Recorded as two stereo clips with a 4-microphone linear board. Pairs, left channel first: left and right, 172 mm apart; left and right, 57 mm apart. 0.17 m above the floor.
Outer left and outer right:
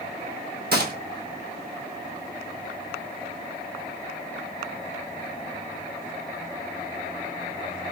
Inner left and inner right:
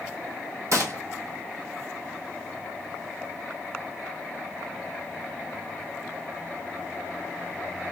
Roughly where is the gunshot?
Right.